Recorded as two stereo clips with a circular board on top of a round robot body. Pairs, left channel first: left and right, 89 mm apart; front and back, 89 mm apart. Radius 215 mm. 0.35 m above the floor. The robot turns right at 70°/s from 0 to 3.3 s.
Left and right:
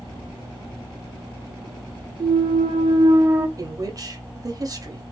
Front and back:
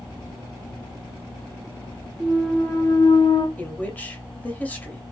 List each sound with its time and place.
2.2 s a clunk: 105° right, 0.6 m; by 3.5 s 25° right, 0.6 m
3.6 s a woman speaking: 65° right, 1.0 m